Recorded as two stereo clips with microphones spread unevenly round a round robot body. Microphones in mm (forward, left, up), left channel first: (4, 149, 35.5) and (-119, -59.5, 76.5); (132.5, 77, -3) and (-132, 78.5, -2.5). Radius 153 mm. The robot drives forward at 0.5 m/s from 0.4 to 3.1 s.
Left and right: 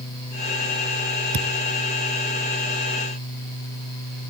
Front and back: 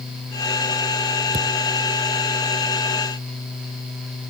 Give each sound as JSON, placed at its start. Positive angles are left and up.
{"t": 1.3, "sound": "a thud", "azimuth_deg": -115}